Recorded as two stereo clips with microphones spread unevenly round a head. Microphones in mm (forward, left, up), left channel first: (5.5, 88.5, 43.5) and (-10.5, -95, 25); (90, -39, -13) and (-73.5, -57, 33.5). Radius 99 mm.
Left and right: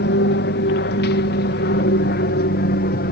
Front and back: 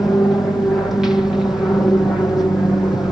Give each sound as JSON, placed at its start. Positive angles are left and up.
{"t": 0.0, "sound": "an aircraft", "azimuth_deg": 85}